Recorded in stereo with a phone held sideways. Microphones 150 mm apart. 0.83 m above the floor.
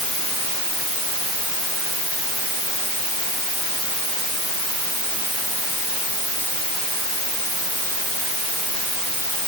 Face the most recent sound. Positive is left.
No sound to turn to.